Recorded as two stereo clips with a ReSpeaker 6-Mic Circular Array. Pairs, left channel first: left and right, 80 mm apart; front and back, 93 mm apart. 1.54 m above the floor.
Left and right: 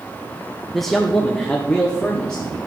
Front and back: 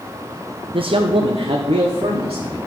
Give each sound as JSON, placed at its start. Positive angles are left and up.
{"t": 0.7, "sound": "a man speaking", "azimuth_deg": 180, "distance_m": 0.5}